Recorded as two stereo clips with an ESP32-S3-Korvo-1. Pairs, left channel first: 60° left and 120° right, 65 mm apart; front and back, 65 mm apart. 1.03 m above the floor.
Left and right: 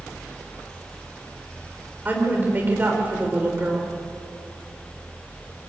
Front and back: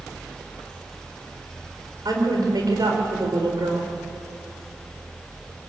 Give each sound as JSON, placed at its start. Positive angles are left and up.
{"t": 2.0, "sound": "a woman speaking", "azimuth_deg": 175, "distance_m": 4.0}